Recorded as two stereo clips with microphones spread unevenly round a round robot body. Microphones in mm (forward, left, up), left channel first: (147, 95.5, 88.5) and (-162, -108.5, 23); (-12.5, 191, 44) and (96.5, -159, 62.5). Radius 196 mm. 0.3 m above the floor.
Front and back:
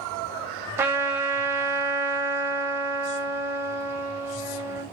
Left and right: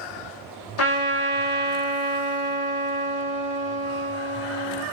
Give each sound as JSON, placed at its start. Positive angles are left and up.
{"t": 0.8, "sound": "a trumpet", "azimuth_deg": 140, "distance_m": 0.6}